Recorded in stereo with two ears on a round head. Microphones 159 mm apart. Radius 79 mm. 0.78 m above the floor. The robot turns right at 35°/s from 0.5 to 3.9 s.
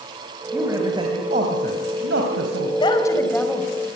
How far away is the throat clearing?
No throat clearing in this recording.